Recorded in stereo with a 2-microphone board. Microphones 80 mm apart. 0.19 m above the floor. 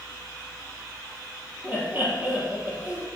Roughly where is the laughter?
Right.